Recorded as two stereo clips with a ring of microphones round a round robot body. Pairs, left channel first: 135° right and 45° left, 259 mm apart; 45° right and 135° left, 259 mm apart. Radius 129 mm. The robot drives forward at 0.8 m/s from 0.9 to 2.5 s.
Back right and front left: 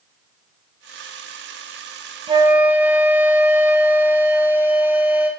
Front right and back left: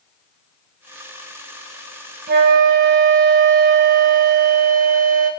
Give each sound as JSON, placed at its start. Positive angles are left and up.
{"t": 2.3, "sound": "a flute", "azimuth_deg": 105, "distance_m": 0.7}